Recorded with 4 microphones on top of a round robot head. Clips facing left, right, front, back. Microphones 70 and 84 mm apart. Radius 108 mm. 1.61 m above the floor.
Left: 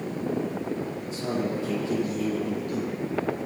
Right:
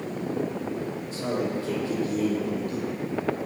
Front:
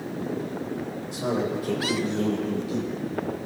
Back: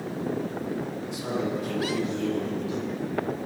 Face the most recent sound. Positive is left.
turn(degrees=-35)